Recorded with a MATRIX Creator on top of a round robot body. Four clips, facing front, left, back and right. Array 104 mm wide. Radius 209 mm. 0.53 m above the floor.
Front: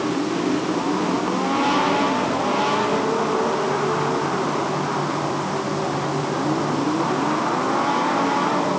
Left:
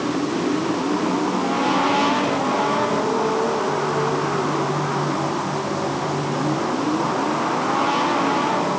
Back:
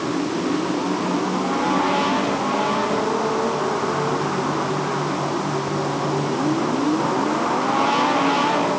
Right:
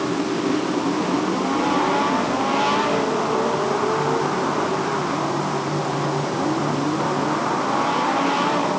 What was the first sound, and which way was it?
Only background noise.